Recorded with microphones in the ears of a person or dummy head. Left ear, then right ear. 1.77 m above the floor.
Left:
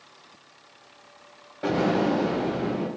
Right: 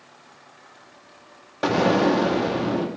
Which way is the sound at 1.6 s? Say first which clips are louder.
Right 4 dB; 65° right (ahead or behind).